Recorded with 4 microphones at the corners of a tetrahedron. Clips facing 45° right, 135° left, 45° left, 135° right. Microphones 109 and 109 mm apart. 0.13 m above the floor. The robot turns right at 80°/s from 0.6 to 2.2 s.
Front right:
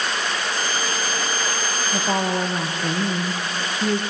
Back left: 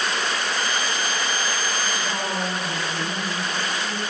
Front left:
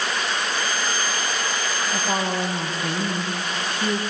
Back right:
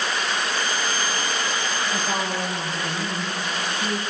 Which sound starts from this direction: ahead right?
A woman speaking, at 1.9 s.